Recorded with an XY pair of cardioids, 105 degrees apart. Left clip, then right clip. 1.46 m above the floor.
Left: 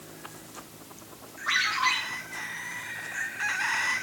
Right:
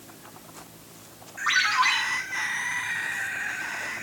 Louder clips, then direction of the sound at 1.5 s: Right 3 dB; 60° right.